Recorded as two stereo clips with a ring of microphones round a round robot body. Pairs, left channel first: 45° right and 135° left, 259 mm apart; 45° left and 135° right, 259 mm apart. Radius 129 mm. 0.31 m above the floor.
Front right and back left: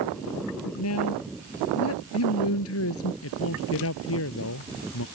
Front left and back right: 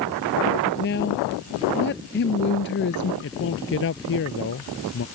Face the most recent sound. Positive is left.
turn(degrees=-5)